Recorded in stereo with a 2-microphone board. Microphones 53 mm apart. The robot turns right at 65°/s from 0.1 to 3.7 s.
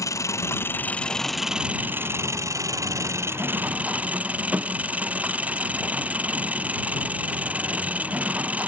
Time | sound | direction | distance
0.0 | an engine running | 95° left | ?